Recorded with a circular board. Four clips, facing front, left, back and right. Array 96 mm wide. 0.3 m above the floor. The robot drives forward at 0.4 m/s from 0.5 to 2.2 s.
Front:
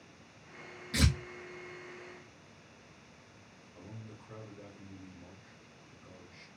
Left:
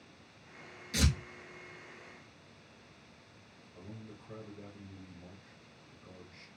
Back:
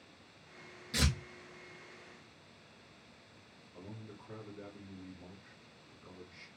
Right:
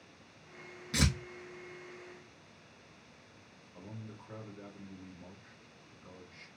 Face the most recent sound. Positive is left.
turn(degrees=-135)